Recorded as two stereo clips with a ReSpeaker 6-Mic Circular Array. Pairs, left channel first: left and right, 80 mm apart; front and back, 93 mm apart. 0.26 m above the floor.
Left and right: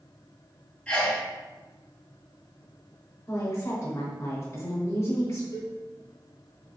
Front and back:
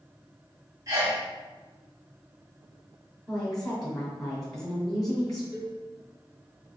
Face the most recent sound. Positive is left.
turn(degrees=110)